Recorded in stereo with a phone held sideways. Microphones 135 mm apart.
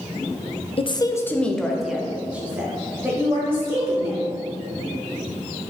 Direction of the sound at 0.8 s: 45° left (ahead or behind).